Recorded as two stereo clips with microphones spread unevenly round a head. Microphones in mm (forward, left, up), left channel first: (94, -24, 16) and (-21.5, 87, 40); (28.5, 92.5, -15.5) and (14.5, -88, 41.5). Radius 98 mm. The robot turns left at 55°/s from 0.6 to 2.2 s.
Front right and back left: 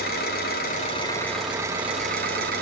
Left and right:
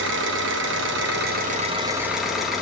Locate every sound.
0.0 s an engine running: 90° right, 2.5 m; by 2.6 s straight behind, 2.5 m